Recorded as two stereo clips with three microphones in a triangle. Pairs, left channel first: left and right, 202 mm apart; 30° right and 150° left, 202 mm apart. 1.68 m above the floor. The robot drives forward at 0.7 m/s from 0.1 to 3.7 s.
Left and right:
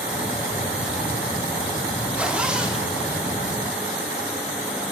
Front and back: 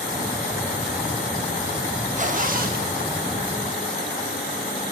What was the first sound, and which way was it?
A zipper, 170° right.